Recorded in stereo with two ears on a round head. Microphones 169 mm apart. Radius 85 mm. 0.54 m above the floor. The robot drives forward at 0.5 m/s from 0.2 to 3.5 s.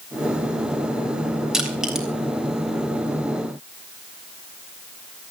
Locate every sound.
1.5 s crushing: 5° right (ahead or behind), 3.5 m